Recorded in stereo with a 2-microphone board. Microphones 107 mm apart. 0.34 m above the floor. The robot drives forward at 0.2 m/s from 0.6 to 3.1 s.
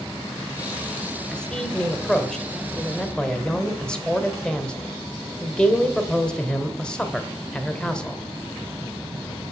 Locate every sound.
1.3 s a man speaking: 5° left (ahead or behind), 1.0 m; by 8.2 s 10° left (ahead or behind), 0.9 m